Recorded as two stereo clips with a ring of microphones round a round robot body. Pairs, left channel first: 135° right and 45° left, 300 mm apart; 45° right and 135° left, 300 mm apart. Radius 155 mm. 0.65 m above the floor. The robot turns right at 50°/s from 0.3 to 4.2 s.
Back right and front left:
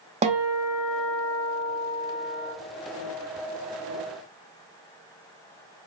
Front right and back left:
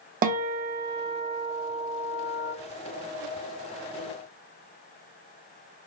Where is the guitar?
100° left, 0.7 m; by 2.5 s 150° right, 0.7 m.